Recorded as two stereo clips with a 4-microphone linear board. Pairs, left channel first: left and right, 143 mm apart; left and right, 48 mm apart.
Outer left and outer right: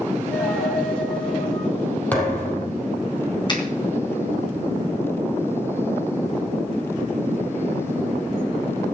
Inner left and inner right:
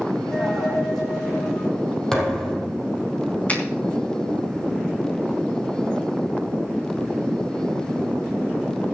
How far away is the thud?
About 3 m.